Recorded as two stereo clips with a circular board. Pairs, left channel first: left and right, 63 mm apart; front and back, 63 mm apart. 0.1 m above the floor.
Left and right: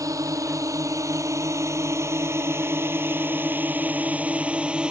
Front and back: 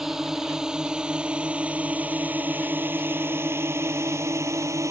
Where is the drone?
100° right; by 4.9 s 165° right.